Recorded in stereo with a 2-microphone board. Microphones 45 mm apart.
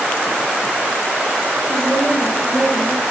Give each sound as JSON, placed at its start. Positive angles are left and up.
{"t": 1.7, "sound": "a woman speaking", "side_deg": -5, "distance_m": 7.0}